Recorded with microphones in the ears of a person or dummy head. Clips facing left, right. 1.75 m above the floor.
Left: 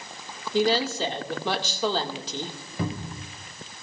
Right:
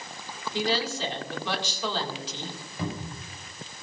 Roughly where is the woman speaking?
Left.